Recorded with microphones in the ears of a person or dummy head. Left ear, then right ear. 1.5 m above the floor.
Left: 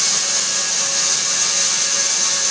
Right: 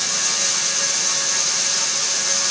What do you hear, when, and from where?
Only background noise.